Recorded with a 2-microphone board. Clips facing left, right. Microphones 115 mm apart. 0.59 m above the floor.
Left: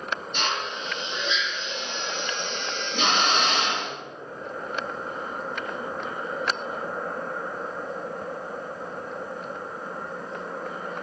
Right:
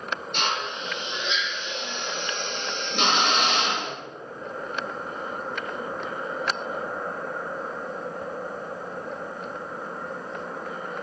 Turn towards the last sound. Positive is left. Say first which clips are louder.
# right 1 dB
turn(degrees=-75)  # may be behind; listen again after turning